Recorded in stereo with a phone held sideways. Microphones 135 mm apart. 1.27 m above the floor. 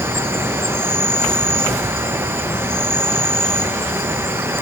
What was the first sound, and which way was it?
An insect, 15° right (ahead or behind).